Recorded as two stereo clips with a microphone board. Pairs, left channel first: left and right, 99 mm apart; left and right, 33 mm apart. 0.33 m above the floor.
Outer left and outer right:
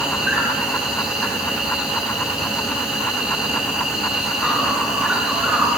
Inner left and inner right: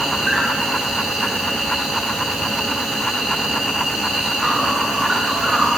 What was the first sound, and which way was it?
An insect, 10° right (ahead or behind).